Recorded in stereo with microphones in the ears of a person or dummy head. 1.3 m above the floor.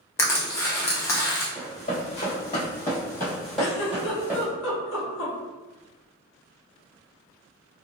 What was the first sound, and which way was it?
Crushing, 15° left (ahead or behind).